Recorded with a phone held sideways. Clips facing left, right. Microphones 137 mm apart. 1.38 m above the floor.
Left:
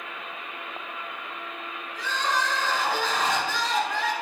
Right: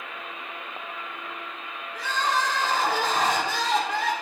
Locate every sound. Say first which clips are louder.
1.9 s crying: right 2 dB; 70° right (ahead or behind), 3 m